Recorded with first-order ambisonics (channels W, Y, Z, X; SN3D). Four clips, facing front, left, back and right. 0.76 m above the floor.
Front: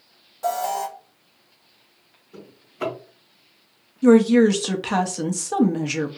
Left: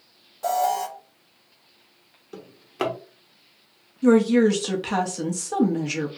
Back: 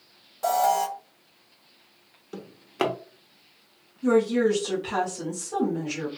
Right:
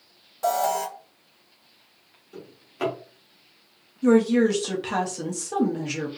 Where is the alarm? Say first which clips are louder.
Left 1 dB, back 2 dB; 115° right, 0.7 m.